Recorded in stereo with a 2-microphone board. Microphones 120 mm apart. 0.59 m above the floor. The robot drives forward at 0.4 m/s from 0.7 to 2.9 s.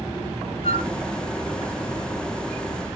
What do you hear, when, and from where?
0.6 s a flute: 50° left (ahead or behind), 1.3 m